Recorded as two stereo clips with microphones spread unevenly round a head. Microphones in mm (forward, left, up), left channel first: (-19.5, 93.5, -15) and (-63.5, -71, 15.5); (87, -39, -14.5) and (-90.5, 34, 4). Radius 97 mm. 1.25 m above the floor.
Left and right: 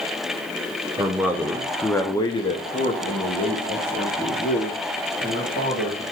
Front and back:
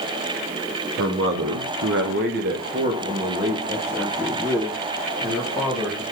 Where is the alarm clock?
I don't hear an alarm clock.